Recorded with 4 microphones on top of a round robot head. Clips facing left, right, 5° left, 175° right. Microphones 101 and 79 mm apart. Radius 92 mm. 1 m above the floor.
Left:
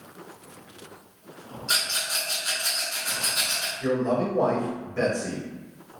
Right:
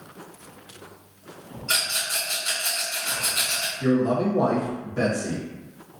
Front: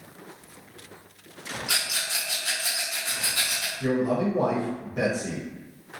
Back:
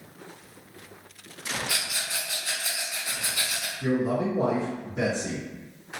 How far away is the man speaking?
About 1.0 m.